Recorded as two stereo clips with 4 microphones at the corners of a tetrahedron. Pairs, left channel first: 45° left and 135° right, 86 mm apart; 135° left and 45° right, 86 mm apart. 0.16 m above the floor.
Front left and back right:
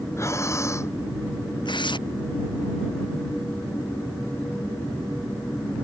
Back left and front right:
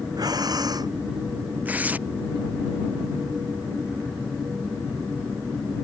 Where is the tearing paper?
25° left.